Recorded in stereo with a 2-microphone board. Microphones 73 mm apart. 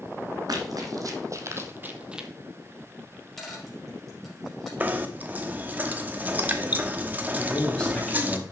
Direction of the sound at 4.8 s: 25° right (ahead or behind).